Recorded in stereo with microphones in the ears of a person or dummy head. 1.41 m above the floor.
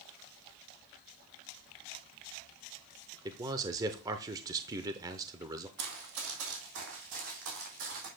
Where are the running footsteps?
55° right (ahead or behind), 2.5 m; by 8.1 s 60° right (ahead or behind), 4.5 m.